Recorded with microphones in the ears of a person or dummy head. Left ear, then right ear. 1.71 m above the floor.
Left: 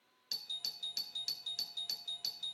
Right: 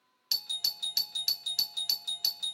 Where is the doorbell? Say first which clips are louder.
Right 9 dB; 35° right (ahead or behind), 0.7 m.